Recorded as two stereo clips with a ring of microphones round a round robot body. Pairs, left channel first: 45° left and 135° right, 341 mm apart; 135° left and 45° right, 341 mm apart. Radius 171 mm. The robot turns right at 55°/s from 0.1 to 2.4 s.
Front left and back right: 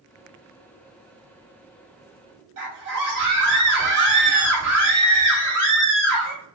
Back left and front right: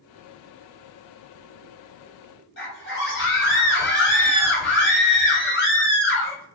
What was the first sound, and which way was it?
A scream, 165° right.